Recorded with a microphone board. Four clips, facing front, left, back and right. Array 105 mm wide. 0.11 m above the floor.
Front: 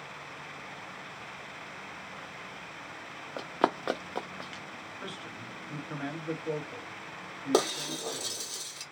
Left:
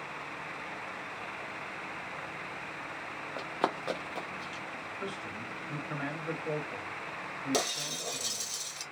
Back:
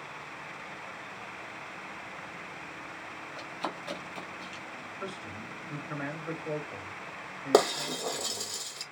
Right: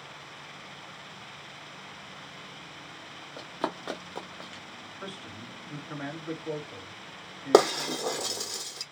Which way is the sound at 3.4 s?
25° left.